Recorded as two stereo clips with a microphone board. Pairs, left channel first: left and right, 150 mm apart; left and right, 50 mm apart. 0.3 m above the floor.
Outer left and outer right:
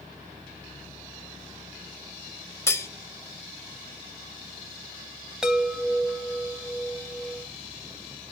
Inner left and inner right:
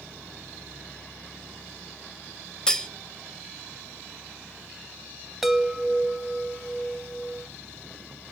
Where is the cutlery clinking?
20° left (ahead or behind), 0.6 m.